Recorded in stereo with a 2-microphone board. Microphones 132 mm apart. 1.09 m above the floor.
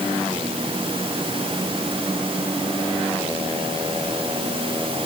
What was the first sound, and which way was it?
Only background noise.